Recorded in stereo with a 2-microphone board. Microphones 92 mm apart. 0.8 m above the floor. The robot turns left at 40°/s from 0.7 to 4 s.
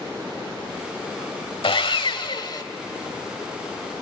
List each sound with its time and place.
1.6 s sawing: 90° left, 1.2 m; by 2.6 s 50° left, 1.2 m